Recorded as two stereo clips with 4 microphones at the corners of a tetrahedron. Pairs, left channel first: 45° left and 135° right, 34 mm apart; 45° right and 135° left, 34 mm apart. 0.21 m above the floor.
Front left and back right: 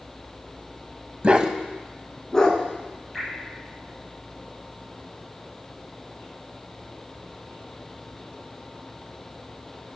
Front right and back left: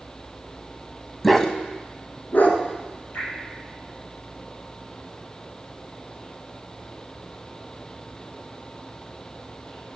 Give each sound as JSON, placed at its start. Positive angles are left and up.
{"t": 1.2, "sound": "a dog barking", "azimuth_deg": -130, "distance_m": 0.6}
{"t": 3.1, "sound": "dripping", "azimuth_deg": -45, "distance_m": 4.0}